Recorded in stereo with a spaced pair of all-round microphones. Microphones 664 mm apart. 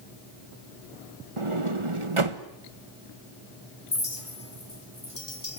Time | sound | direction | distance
1.4 | a sliding door | 45° right (ahead or behind) | 1.3 m
3.9 | a clink | 50° left (ahead or behind) | 2 m